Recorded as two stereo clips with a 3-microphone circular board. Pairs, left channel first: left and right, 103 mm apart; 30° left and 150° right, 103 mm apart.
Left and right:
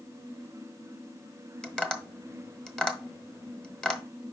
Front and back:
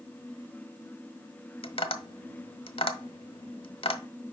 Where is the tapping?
10° left, 0.8 m.